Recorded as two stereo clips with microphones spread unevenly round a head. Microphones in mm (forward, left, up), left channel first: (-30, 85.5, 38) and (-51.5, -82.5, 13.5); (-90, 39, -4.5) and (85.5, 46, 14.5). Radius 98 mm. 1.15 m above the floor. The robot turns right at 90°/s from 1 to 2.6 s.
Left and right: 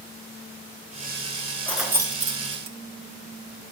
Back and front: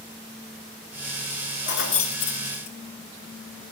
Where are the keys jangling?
160° left, 1.3 m; by 2.8 s 115° right, 1.3 m.